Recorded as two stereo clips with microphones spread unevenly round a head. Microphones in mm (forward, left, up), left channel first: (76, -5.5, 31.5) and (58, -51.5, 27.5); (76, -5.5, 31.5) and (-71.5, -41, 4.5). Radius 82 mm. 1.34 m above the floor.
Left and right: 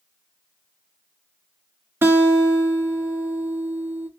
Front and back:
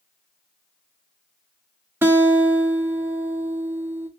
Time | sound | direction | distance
2.0 | a guitar | 85° right | 0.5 m